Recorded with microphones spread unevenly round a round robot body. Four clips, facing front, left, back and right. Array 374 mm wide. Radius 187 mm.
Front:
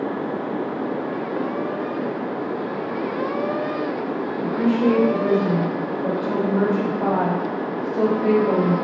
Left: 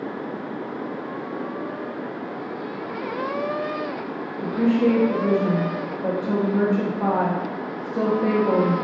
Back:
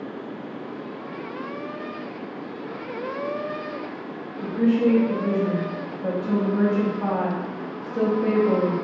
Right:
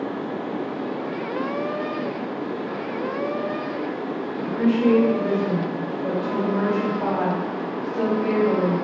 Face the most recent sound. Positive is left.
turn(degrees=100)